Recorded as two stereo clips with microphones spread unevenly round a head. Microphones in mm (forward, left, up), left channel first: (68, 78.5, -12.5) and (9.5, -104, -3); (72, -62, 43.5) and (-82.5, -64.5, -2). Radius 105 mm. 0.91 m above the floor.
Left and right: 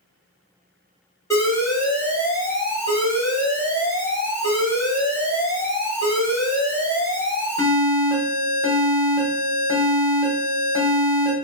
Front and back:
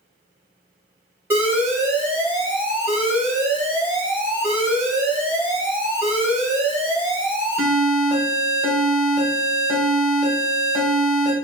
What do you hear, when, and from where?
1.3 s an alarm: 135° left, 1.3 m